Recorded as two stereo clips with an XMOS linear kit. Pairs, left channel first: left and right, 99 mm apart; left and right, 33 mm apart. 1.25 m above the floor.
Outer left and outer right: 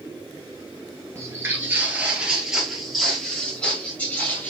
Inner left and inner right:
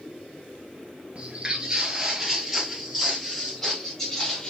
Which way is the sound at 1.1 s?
25° right (ahead or behind).